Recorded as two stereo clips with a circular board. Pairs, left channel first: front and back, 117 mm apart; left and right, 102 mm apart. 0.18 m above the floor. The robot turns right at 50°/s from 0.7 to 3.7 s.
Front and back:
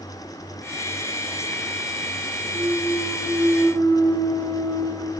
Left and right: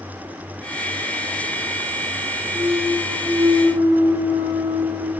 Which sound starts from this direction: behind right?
A clunk, at 2.5 s.